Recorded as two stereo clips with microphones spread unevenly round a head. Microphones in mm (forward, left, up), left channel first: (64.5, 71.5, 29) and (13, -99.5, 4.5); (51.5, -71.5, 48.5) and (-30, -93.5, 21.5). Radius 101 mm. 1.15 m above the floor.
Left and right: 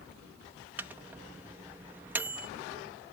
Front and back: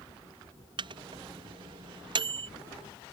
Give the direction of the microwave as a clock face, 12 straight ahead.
6 o'clock.